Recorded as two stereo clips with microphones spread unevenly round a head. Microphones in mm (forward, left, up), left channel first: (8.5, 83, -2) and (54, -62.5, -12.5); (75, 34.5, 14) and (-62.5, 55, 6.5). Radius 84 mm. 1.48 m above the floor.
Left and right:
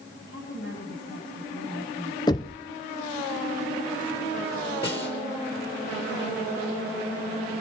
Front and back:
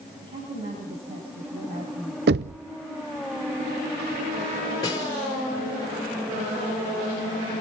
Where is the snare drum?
55° left, 4.5 m.